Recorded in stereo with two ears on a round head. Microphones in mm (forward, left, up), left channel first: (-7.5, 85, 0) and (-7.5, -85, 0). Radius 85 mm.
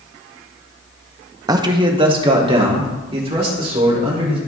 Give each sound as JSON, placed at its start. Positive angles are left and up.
{"t": 1.5, "sound": "a man speaking", "side_deg": -20, "distance_m": 0.6}